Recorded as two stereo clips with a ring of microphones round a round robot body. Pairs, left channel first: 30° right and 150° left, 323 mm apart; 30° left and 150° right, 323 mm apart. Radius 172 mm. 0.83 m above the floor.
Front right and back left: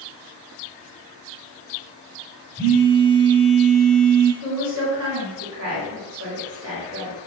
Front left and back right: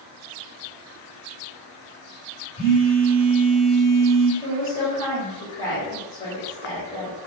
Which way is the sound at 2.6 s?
70° left.